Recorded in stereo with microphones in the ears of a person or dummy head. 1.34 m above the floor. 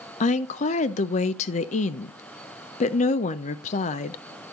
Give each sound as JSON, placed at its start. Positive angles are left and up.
{"t": 0.2, "sound": "a woman speaking", "side_deg": 40, "distance_m": 0.6}